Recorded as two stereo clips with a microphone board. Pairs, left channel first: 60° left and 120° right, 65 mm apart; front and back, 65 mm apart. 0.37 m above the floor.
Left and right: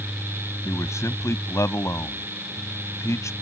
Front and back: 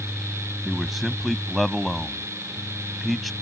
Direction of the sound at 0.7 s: 90° left.